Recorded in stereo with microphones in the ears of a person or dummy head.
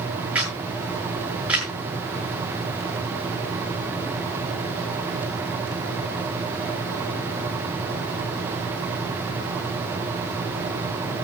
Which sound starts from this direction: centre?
A camera shutter, at 0.3 s.